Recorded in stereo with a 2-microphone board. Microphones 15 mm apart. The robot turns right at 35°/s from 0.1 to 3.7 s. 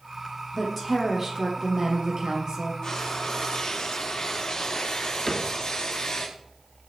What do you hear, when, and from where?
0.5 s a woman speaking: 175° left, 4.5 m; by 2.7 s 110° right, 4.5 m
2.8 s frying: 50° left, 5.5 m; by 6.3 s 80° left, 5.5 m
5.3 s a cupboard door: 30° left (ahead or behind), 2 m